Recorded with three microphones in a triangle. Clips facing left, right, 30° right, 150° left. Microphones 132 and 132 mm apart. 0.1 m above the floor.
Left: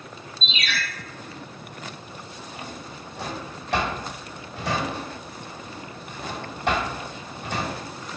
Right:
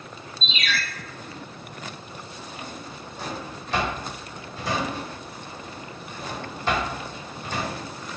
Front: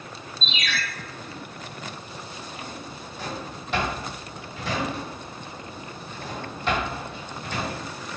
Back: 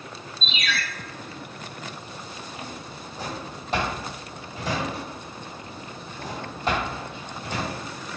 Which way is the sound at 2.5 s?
105° left.